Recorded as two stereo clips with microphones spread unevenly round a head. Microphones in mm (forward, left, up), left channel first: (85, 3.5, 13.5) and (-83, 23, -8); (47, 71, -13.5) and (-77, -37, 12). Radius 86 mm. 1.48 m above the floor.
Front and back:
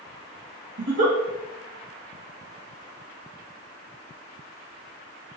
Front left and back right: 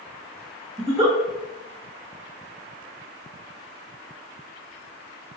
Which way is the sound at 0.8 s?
175° left.